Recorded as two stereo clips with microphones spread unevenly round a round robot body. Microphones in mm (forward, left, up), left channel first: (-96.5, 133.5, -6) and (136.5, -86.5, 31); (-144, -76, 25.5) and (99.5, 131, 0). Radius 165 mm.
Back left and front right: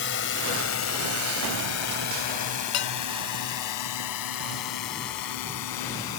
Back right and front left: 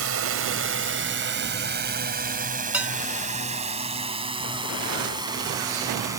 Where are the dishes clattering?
125° left.